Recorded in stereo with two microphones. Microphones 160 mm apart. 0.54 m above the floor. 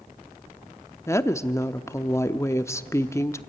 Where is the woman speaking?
20° left (ahead or behind), 0.7 m.